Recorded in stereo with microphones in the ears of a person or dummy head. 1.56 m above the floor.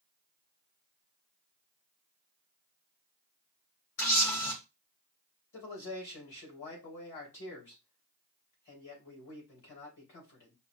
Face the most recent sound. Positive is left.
turn(degrees=50)  # may be behind; listen again after turning